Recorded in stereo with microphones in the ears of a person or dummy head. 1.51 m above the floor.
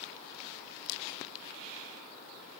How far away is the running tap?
No running tap in this recording.